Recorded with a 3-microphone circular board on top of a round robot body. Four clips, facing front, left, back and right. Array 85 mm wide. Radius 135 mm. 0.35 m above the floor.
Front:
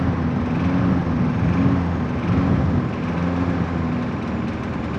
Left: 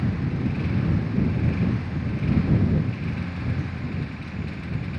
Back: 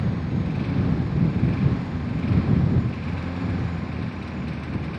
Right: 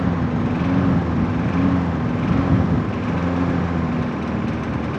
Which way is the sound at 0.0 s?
55° right.